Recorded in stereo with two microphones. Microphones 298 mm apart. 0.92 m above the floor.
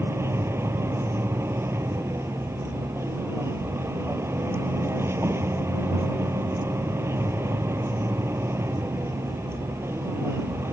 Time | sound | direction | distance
0.0 | a vehicle | 10° right (ahead or behind) | ?